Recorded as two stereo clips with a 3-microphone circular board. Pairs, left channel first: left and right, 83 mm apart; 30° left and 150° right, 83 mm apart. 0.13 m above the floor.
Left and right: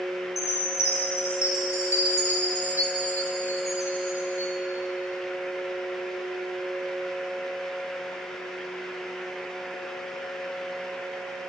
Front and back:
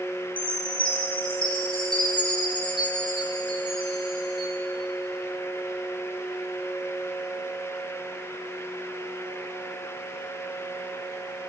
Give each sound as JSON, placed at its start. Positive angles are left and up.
{"t": 0.4, "sound": "a chime", "azimuth_deg": 35, "distance_m": 2.0}